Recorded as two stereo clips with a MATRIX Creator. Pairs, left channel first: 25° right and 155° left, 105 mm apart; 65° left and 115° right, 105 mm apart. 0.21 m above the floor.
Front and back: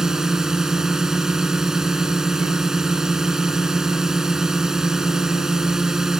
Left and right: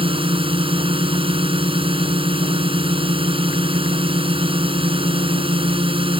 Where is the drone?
120° right.